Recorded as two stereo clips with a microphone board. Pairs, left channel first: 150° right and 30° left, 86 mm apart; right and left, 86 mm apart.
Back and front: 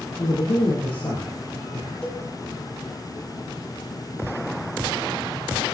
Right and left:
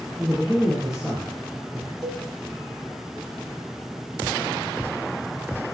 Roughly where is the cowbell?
Behind left.